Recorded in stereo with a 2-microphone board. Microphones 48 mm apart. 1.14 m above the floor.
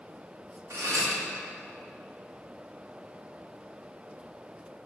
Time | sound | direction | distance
0.7 | cutlery clinking | 75° right (ahead or behind) | 1.2 m